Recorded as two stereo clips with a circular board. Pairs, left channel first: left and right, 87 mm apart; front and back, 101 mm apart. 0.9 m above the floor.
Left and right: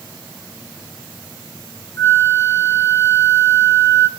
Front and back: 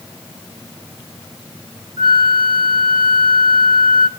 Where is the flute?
145° left, 0.9 m.